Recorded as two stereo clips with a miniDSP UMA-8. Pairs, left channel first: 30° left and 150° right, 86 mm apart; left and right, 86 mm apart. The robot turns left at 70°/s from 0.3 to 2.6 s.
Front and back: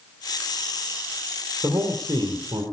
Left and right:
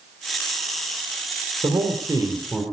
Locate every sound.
1.6 s a man speaking: 95° right, 2.5 m; by 2.6 s 160° right, 2.5 m